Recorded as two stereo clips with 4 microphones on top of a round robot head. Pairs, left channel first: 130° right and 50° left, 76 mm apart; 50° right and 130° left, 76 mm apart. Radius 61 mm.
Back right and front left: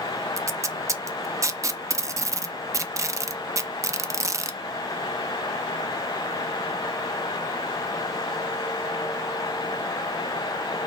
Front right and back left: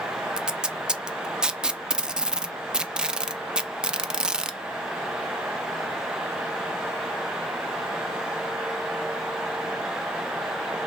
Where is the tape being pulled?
55° left, 0.5 m.